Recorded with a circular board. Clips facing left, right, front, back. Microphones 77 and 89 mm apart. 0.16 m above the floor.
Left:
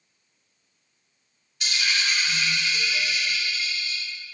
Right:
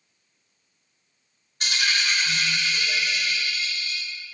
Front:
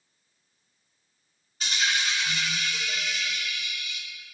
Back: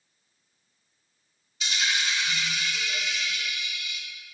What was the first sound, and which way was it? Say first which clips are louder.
A dropped coin: right 1 dB, front 1 dB; 45° right.